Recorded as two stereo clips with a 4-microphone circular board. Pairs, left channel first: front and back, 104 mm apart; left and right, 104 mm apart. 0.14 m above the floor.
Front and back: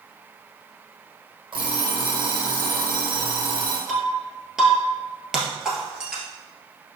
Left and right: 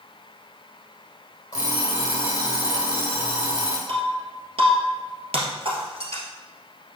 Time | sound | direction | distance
1.5 | an alarm clock | 140° left | 3 m
3.9 | breaking glass | 95° right | 1.9 m